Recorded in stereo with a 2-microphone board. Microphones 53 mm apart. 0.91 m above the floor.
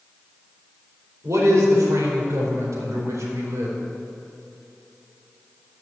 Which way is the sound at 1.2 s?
75° right (ahead or behind).